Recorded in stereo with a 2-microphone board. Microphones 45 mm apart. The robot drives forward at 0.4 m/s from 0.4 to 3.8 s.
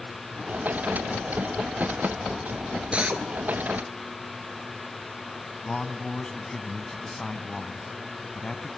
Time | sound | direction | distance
2.9 | a drill | 30° right (ahead or behind) | 1.6 m
5.7 | a man speaking | 15° left (ahead or behind) | 1.9 m